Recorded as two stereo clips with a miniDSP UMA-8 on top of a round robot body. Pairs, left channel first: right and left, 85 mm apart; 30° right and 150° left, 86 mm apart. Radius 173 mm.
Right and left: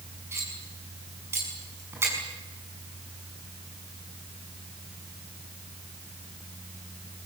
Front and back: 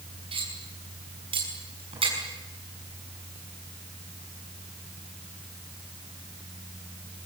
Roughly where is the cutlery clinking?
Behind left.